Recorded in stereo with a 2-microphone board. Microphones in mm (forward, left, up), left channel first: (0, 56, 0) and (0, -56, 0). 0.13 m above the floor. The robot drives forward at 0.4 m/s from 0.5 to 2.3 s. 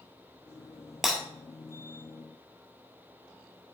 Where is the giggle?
No giggle in this recording.